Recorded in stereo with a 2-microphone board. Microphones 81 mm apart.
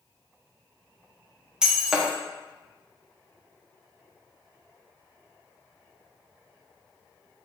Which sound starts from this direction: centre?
Breaking glass, at 1.6 s.